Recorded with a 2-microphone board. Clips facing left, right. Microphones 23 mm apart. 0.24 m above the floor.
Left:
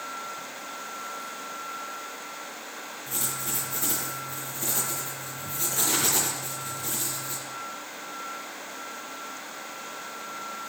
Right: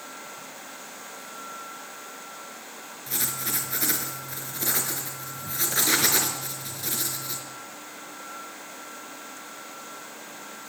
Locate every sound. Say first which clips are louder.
3.1 s writing: right 2 dB; 65° right (ahead or behind), 4 m